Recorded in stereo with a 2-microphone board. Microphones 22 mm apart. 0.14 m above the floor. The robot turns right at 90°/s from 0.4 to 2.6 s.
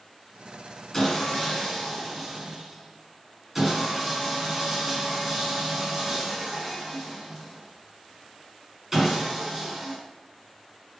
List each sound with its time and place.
0.9 s sawing: 20° left (ahead or behind), 1.6 m; by 10.0 s 15° right (ahead or behind), 1.6 m